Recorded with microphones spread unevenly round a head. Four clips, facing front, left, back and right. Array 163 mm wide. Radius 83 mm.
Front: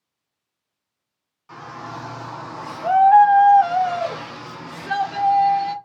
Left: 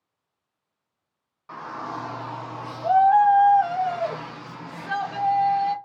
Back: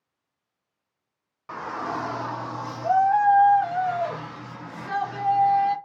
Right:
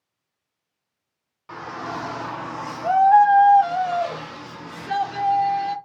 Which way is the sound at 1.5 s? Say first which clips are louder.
Right 2 dB, back 4 dB; 150° right.